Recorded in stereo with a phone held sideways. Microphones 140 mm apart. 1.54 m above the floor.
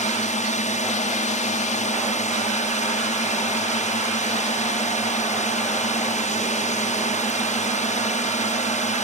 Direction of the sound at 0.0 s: 55° left (ahead or behind).